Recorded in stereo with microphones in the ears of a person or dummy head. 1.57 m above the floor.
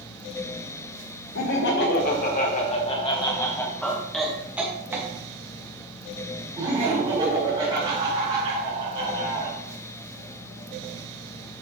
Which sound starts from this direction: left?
Laughter, at 1.4 s.